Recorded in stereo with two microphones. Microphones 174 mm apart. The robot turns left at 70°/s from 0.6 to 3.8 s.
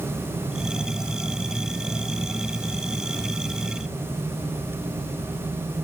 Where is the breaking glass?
I don't hear breaking glass.